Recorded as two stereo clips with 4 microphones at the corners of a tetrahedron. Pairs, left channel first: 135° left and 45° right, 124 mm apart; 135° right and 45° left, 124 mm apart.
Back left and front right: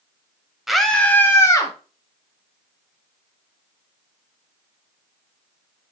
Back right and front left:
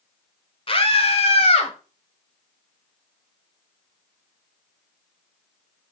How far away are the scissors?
I don't hear scissors.